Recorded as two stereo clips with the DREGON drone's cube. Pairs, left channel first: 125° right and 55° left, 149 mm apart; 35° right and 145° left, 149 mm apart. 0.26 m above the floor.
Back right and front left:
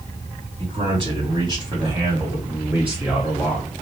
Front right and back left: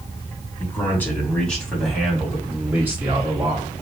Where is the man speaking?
35° left, 2.0 m; by 3.7 s 155° left, 1.6 m.